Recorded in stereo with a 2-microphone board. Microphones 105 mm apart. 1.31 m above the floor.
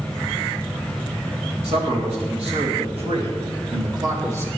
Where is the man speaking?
85° right, 3.5 m; by 4.5 s 25° right (ahead or behind), 2 m.